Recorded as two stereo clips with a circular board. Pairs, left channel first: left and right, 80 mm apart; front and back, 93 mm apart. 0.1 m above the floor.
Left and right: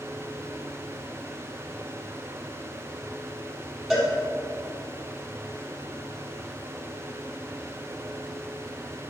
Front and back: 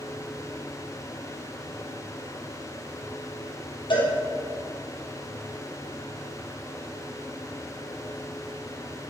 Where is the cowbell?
Straight ahead, 3.5 m.